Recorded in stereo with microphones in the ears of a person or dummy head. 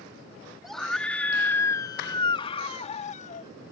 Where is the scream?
Centre (ahead or behind); by 3.5 s 50° left (ahead or behind).